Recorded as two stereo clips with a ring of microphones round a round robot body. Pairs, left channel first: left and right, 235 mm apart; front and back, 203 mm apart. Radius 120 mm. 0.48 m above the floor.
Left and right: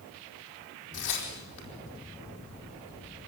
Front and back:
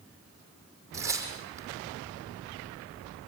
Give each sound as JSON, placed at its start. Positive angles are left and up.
{"t": 0.9, "sound": "tearing paper", "azimuth_deg": 105, "distance_m": 5.0}